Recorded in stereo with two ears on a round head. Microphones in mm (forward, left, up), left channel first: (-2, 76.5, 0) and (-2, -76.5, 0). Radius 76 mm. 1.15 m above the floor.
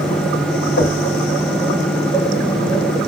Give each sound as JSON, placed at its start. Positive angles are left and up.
{"t": 0.8, "sound": "knocking", "side_deg": 80, "distance_m": 4.0}